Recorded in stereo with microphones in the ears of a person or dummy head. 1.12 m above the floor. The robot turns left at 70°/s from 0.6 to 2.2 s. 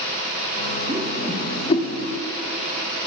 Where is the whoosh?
15° right (ahead or behind), 1.1 m; by 1.9 s 55° left (ahead or behind), 1.1 m.